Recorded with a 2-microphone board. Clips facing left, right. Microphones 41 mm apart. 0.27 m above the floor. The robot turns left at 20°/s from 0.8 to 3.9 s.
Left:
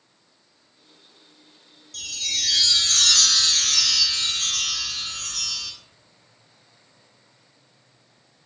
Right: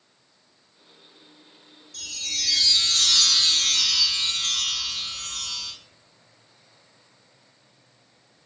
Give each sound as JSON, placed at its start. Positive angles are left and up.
{"t": 1.9, "sound": "a chime", "azimuth_deg": 125, "distance_m": 0.7}